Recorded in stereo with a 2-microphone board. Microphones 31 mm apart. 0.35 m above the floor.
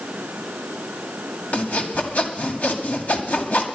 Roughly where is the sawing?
Left.